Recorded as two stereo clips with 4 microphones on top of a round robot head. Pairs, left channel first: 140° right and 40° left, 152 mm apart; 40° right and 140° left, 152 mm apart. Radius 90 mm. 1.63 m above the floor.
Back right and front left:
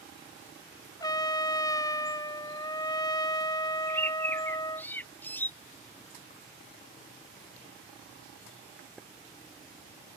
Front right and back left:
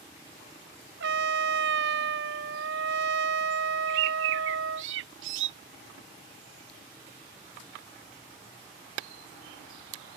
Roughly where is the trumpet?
Behind left.